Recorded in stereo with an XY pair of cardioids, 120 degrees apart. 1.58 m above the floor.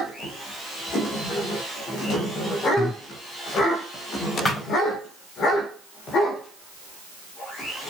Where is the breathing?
25° left, 0.7 m.